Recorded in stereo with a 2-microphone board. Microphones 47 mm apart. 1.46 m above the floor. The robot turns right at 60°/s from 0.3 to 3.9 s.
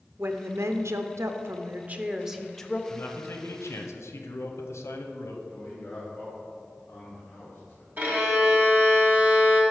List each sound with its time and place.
0.2 s a woman speaking: 125° right, 0.5 m; by 2.8 s 25° left, 0.5 m
2.9 s a man speaking: 40° left, 0.8 m; by 5.4 s 100° left, 0.8 m
5.5 s a man speaking: 50° left (ahead or behind), 1.5 m
8.0 s a violin: 40° right (ahead or behind), 1.6 m